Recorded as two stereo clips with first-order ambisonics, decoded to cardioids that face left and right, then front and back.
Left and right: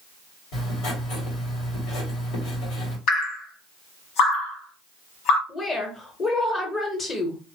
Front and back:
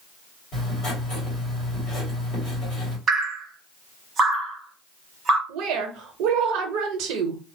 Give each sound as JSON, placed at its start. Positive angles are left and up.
{"t": 0.5, "sound": "writing", "azimuth_deg": 55, "distance_m": 2.5}
{"t": 3.1, "sound": "dripping", "azimuth_deg": 110, "distance_m": 1.3}
{"t": 5.5, "sound": "a woman speaking", "azimuth_deg": 160, "distance_m": 1.0}